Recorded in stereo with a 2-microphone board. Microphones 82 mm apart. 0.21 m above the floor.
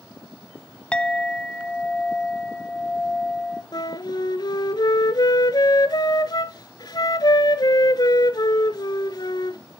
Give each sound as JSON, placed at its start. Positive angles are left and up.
{"t": 0.9, "sound": "a clink", "side_deg": 10, "distance_m": 0.6}
{"t": 3.7, "sound": "a flute", "side_deg": 55, "distance_m": 0.7}